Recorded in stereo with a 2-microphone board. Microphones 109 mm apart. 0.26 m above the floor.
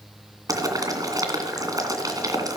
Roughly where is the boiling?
Right.